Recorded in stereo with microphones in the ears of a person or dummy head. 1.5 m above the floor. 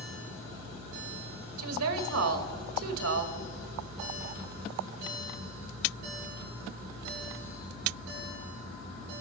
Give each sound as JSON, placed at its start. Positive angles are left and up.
{"t": 1.6, "sound": "a woman speaking", "side_deg": -85, "distance_m": 1.8}